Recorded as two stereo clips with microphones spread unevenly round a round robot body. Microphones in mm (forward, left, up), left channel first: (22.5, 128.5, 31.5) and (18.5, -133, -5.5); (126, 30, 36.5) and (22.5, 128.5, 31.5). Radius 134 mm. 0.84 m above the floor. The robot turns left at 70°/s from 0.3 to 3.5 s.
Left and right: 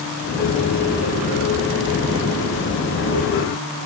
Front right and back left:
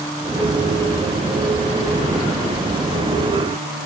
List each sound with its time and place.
Only background noise.